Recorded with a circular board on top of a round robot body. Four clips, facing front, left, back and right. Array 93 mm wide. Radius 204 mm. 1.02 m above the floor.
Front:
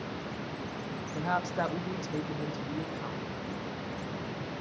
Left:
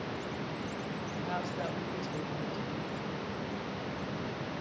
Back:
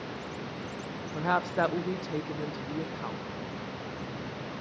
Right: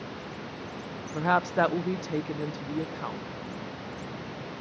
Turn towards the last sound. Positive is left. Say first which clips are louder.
# right 13 dB, back 3 dB
turn(degrees=-110)